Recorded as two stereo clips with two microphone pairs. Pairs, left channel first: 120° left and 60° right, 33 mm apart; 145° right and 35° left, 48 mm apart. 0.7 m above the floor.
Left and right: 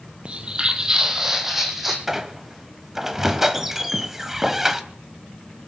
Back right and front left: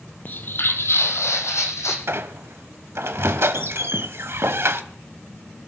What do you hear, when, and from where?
0.2 s footsteps: 100° right, 1.0 m; by 2.0 s 145° right, 2.5 m
2.1 s a squeak: 15° left, 0.9 m